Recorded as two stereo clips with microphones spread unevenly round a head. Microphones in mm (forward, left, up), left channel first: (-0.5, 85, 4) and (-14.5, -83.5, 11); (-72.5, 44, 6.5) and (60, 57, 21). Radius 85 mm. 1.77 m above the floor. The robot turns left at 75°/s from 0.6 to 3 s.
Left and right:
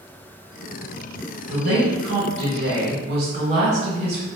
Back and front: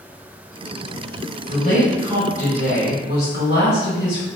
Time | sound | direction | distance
1.5 | a woman speaking | 35° right | 1.4 m